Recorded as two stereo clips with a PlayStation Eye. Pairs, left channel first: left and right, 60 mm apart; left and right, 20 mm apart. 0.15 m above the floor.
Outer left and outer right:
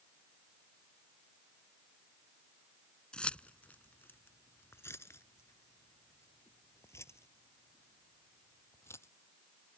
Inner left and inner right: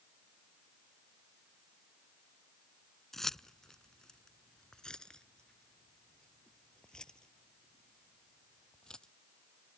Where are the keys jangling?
15° left (ahead or behind); by 9.1 s 45° left (ahead or behind).